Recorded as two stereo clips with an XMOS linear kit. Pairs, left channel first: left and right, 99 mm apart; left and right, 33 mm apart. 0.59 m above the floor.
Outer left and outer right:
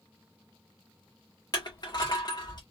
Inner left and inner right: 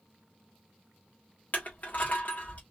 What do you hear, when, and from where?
1.5 s crushing: 45° left (ahead or behind), 1.6 m